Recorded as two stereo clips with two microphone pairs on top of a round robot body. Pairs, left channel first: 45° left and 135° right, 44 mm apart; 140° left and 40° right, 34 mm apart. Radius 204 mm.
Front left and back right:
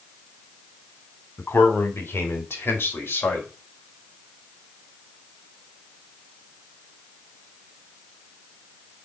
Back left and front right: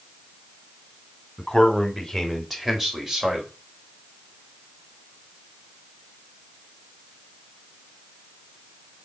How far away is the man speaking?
About 3.5 m.